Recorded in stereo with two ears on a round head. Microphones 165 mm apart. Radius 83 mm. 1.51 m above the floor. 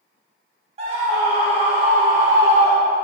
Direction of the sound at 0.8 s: 35° right (ahead or behind).